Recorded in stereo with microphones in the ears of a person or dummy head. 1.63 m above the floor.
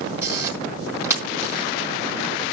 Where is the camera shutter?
15° right (ahead or behind), 4 m.